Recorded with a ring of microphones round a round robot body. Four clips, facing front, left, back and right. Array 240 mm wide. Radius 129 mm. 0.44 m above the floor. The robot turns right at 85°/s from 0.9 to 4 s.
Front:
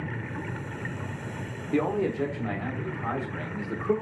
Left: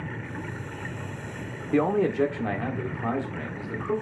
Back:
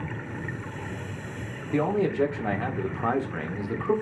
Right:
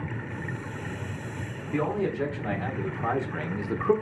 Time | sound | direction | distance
1.7 | a man speaking | 75° left | 1.3 m